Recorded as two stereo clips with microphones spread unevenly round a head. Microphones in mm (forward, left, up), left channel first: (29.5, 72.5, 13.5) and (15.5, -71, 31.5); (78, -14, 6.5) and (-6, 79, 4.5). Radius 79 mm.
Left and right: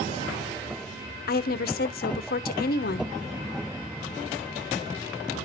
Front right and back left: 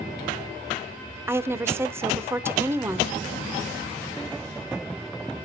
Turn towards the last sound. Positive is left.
turn(degrees=60)